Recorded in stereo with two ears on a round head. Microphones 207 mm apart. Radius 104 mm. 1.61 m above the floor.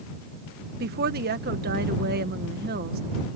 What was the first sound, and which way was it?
A woman speaking, 40° right (ahead or behind).